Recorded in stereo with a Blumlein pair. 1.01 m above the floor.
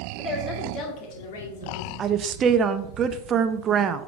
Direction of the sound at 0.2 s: 10° left.